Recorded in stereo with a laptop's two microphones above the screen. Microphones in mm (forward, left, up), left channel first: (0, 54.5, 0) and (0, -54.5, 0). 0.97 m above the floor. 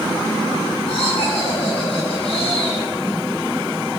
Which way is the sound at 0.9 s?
65° left (ahead or behind).